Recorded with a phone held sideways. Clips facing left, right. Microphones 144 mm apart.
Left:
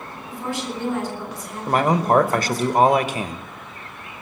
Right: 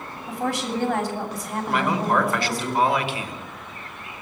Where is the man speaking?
45° left (ahead or behind), 1.0 m.